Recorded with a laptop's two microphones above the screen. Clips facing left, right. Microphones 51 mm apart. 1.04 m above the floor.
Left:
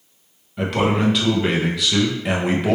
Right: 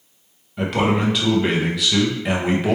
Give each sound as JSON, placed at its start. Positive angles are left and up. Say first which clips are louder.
{"t": 0.6, "sound": "a man speaking", "louder": "even", "side_deg": 0, "distance_m": 0.6}